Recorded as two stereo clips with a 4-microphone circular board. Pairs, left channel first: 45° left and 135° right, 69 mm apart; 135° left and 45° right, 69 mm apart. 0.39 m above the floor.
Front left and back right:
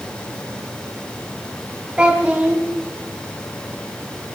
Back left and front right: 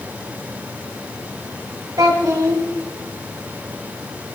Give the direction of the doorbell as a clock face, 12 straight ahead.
No doorbell in this recording.